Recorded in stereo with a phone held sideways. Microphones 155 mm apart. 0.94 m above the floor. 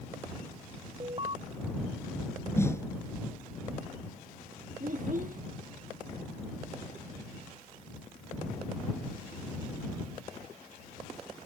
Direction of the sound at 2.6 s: 15° left (ahead or behind).